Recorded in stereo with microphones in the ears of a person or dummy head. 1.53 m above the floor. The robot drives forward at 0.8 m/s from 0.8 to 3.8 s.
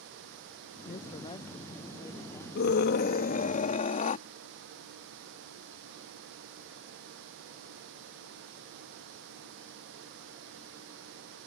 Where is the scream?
65° left (ahead or behind); by 4.2 s 45° left (ahead or behind).